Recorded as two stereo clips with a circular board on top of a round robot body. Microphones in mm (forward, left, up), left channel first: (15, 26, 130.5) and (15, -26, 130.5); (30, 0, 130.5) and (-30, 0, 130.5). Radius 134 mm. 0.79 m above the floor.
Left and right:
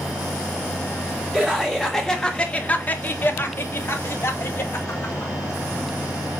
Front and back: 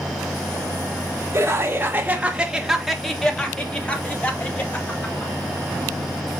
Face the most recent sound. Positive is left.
turn(degrees=55)